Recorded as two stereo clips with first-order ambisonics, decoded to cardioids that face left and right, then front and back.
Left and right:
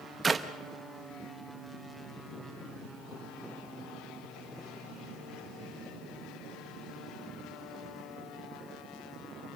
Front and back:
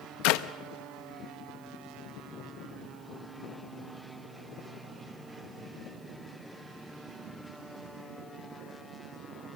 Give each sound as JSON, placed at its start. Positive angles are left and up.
{"t": 0.2, "sound": "a clap", "azimuth_deg": -15, "distance_m": 0.7}